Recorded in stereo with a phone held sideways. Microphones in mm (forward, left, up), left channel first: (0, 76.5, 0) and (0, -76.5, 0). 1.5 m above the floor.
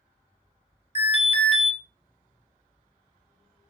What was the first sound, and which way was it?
An alarm, 40° left (ahead or behind).